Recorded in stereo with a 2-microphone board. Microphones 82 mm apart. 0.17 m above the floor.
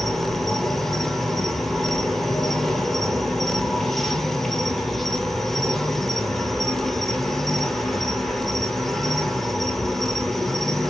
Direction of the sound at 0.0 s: Centre (ahead or behind).